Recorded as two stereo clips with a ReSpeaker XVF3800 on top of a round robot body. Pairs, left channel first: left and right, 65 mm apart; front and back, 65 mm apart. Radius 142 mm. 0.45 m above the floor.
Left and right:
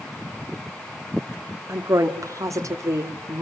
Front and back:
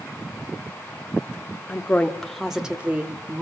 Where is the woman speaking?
55° right, 1.6 m; by 3.4 s 130° right, 2 m.